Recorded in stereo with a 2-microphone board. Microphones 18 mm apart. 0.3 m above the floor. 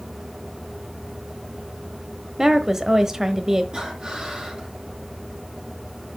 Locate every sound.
2.4 s a woman speaking: 25° right (ahead or behind), 1.1 m
3.7 s breathing: 50° right (ahead or behind), 7.5 m